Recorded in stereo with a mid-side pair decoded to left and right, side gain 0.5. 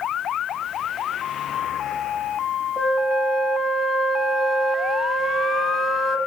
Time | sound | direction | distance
2.8 | a flute | 25° right | 0.7 m